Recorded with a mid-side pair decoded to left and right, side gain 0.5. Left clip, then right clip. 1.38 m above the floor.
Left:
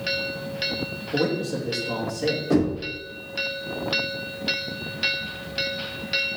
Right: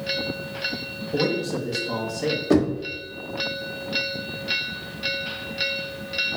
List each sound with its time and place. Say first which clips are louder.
1.1 s a man speaking: right 1 dB; 10° right, 2.5 m
2.5 s knocking: right 4 dB; 30° right, 2.5 m